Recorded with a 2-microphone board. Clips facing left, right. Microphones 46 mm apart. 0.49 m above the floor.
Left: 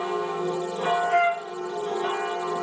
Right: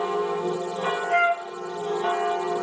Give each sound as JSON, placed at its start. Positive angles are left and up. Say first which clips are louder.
{"t": 1.1, "sound": "a flute", "louder": "right 4 dB", "side_deg": 50, "distance_m": 3.5}